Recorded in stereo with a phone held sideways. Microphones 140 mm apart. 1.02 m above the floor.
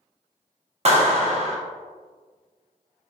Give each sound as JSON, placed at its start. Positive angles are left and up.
{"t": 0.8, "sound": "a clap", "side_deg": -50, "distance_m": 0.7}